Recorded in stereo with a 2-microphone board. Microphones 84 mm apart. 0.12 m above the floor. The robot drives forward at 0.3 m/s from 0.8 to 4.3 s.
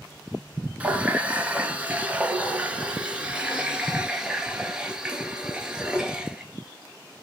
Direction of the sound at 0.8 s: 15° right (ahead or behind).